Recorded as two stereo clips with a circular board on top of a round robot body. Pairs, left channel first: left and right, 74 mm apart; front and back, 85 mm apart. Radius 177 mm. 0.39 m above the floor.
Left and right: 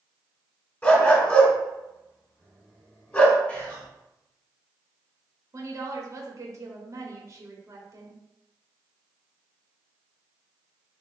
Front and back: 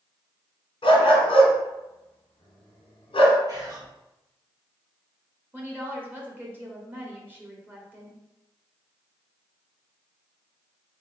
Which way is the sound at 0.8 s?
20° left.